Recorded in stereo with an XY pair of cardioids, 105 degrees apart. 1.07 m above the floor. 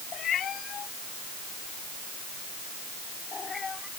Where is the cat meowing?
60° left; by 3.9 s 30° left.